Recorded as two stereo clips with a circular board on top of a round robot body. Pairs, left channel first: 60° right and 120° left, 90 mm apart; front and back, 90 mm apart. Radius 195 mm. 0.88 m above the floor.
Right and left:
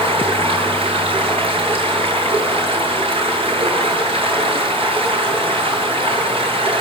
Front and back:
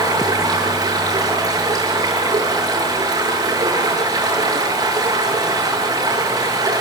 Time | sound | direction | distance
0.0 | running water | 135° left | 8.5 m